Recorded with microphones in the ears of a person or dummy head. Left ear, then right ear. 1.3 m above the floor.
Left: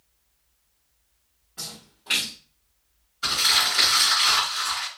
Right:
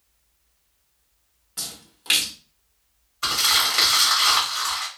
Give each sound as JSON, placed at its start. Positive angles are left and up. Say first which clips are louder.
{"t": 1.6, "sound": "a splash", "louder": "right 3 dB", "side_deg": -60, "distance_m": 1.1}
{"t": 3.2, "sound": "crumpling", "louder": "right 1 dB", "side_deg": -30, "distance_m": 1.2}